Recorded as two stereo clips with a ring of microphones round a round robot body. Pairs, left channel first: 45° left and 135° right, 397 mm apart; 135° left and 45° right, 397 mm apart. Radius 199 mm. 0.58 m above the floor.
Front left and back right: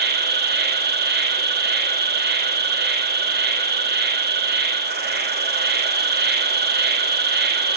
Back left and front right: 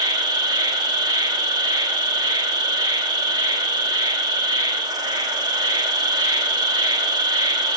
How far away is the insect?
About 1.1 m.